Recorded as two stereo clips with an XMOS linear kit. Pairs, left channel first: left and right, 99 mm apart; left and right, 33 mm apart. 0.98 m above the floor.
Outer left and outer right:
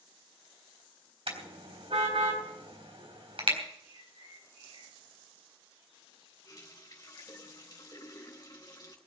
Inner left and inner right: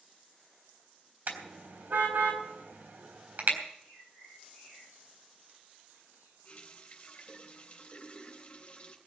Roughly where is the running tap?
Left.